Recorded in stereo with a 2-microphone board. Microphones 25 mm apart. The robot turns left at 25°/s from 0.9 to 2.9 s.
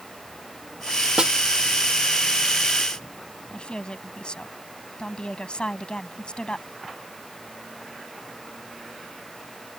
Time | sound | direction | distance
1.2 | a snare drum | 40° right (ahead or behind) | ?
3.5 | a woman speaking | 40° left (ahead or behind) | ?